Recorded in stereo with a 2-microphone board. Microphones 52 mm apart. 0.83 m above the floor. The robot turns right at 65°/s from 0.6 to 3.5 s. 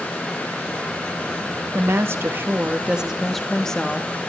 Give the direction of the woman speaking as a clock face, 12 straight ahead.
3 o'clock.